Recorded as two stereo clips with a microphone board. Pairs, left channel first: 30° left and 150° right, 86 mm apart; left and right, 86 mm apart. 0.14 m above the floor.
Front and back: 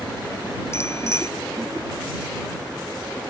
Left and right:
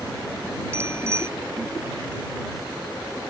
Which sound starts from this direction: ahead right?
A bicycle bell, at 0.7 s.